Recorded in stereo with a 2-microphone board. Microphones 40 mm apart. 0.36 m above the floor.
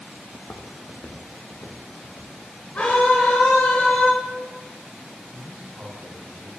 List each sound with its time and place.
0.3 s footsteps: 50° left (ahead or behind), 0.9 m; by 2.3 s 75° left (ahead or behind), 2 m
2.8 s a scream: 40° left (ahead or behind), 1.1 m
5.3 s a man speaking: 50° right (ahead or behind), 2.5 m